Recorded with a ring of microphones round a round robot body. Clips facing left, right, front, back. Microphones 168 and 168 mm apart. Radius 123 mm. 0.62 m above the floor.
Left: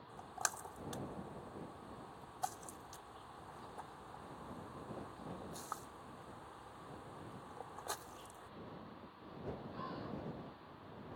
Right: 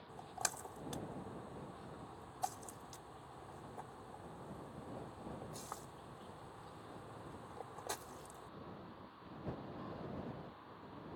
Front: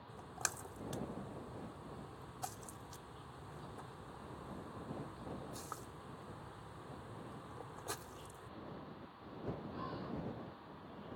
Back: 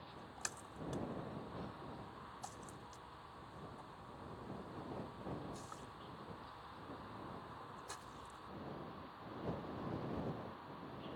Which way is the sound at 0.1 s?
20° right.